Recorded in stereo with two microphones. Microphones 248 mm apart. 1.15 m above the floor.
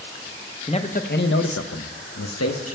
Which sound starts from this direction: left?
A man speaking, at 0.7 s.